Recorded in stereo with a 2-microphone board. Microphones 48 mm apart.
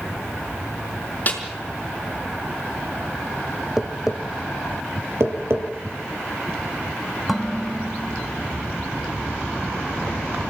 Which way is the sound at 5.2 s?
65° right (ahead or behind).